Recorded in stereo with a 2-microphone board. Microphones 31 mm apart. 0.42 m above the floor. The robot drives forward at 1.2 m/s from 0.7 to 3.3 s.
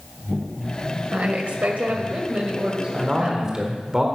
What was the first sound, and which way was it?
A woman speaking, 55° right (ahead or behind).